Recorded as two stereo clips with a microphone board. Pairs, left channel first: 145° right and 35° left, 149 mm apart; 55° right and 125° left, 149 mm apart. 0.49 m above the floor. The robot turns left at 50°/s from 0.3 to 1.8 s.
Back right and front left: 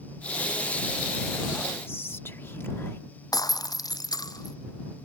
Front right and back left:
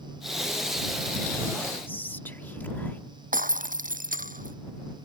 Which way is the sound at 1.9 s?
105° right.